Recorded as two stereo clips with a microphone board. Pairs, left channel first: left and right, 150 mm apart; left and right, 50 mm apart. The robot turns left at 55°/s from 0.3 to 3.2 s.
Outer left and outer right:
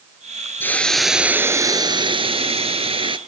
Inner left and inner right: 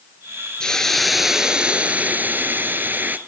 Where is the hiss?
25° left, 1.2 m; by 3.2 s 120° right, 1.2 m.